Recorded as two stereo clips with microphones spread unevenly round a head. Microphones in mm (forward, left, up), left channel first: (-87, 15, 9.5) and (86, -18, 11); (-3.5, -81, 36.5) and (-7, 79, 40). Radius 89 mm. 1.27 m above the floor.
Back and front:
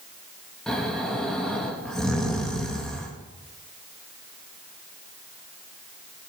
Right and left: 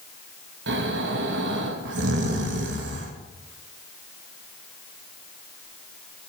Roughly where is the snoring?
Left.